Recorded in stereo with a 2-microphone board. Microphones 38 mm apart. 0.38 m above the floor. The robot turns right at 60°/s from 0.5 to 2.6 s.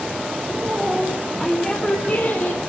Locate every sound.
0.5 s a woman speaking: 50° right, 3.5 m; by 2.6 s 75° left, 3.5 m